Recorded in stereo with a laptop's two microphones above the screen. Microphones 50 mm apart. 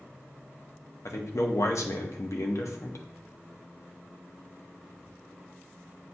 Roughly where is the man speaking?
Left.